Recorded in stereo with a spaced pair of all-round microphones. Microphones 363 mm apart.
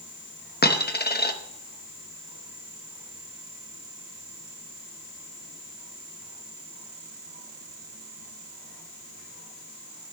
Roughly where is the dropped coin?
Left.